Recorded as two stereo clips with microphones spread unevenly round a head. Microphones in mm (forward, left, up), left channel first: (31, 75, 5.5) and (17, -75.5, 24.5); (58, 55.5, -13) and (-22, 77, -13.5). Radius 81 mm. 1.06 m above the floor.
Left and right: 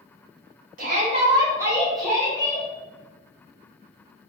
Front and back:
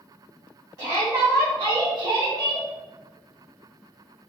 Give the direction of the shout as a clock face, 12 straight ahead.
4 o'clock.